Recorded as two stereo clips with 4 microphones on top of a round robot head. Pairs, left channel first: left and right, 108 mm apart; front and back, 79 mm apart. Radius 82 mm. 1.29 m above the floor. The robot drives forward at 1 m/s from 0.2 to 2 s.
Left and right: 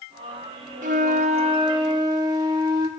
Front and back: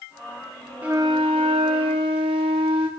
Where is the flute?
100° right, 0.7 m; by 2.9 s 155° right, 1.5 m.